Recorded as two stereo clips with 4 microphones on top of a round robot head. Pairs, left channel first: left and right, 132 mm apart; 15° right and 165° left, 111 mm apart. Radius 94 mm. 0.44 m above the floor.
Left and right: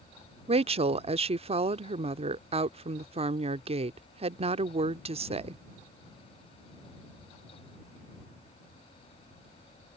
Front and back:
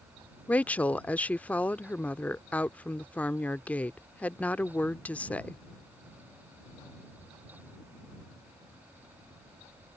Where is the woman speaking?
90° right.